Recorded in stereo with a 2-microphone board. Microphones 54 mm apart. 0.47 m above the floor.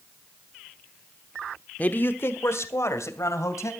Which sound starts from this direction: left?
A man speaking, at 1.8 s.